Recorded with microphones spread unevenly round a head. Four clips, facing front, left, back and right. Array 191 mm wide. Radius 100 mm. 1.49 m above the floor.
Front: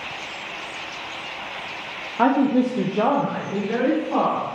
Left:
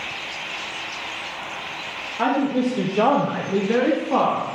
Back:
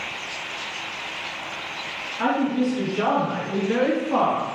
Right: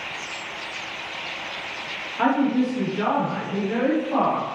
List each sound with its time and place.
2.2 s a woman speaking: straight ahead, 0.6 m; by 4.5 s 105° left, 1.3 m